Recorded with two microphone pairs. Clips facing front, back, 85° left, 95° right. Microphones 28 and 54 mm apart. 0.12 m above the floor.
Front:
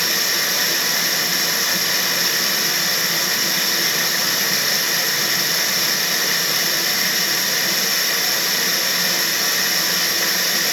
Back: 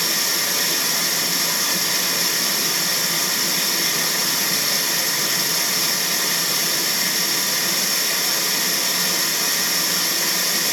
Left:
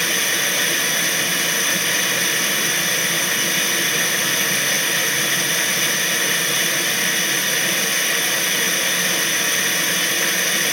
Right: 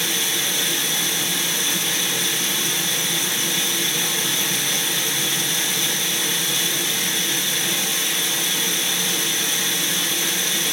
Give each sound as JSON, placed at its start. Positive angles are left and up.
{"t": 0.0, "sound": "running water", "azimuth_deg": 65, "distance_m": 1.4}